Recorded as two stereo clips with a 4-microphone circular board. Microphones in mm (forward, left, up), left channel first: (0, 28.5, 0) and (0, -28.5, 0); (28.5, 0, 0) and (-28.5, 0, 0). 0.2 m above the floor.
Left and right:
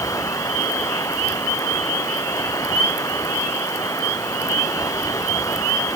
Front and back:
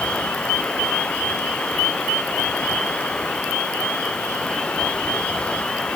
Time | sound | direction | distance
0.0 | running water | 75° left | ?